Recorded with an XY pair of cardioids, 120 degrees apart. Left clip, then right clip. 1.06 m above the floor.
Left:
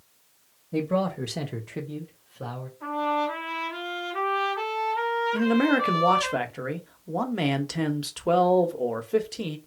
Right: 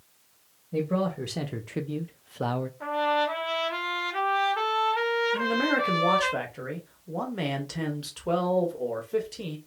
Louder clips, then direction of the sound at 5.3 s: Left 2 dB; 30° left.